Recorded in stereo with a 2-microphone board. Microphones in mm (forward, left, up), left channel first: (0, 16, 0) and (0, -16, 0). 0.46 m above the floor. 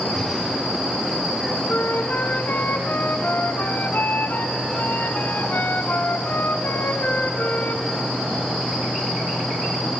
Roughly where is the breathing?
Centre.